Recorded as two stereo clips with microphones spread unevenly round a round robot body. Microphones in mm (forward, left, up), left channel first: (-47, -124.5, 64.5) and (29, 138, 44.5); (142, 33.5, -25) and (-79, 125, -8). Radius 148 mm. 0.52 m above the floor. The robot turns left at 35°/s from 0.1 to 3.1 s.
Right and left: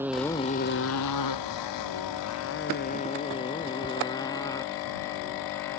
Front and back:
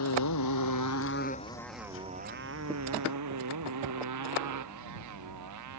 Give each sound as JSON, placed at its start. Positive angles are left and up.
{"t": 0.0, "sound": "a motorcycle", "azimuth_deg": -10}